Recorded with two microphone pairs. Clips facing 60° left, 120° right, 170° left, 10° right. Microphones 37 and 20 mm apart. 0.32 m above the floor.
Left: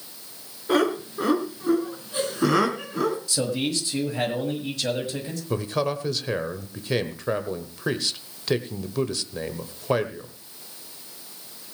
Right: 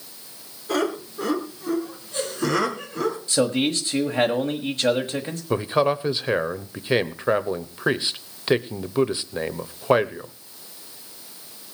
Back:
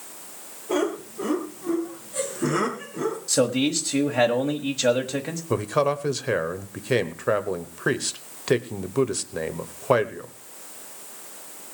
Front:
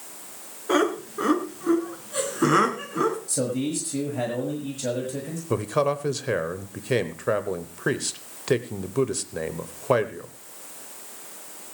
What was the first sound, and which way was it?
Laughter, 5° right.